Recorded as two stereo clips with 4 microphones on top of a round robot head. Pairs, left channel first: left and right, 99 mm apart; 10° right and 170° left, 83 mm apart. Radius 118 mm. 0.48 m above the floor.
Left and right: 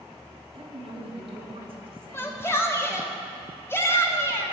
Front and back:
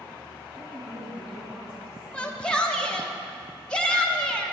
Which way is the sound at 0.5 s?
115° right.